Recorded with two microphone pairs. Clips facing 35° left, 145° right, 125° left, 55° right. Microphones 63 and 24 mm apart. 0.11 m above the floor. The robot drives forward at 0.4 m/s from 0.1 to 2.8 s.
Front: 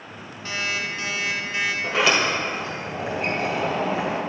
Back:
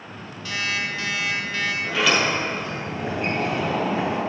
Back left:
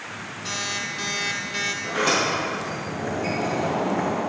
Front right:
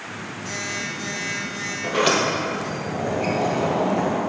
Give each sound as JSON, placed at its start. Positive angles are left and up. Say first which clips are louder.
{"t": 0.5, "sound": "an alarm clock", "louder": "back 1 dB, back left 1 dB", "azimuth_deg": 90, "distance_m": 1.8}
{"t": 1.8, "sound": "a sliding door", "louder": "even, front right 4 dB", "azimuth_deg": -30, "distance_m": 2.0}